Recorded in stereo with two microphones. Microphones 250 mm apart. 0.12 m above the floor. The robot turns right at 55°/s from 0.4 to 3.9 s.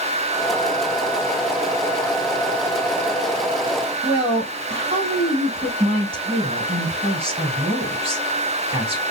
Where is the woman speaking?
20° right (ahead or behind), 1.9 m.